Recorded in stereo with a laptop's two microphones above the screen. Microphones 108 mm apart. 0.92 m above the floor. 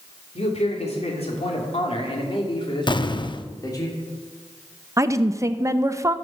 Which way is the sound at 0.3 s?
75° left (ahead or behind).